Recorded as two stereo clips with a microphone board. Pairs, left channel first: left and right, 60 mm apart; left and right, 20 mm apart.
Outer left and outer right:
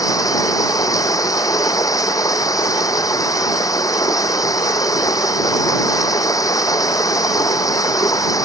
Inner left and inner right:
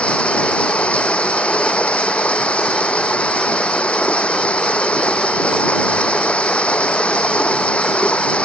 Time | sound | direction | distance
0.0 | running water | 75° left (ahead or behind) | ?